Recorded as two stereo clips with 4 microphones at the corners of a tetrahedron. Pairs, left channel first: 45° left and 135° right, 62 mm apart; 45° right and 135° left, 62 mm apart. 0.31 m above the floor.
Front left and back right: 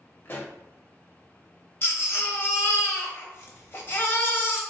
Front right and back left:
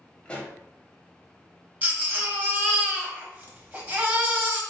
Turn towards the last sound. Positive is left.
turn(degrees=80)